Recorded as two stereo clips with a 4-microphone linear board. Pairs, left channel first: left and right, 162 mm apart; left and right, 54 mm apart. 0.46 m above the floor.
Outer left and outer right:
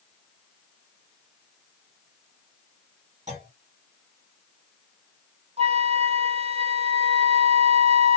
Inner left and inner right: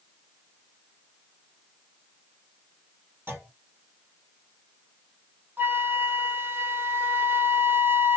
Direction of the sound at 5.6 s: 40° right (ahead or behind).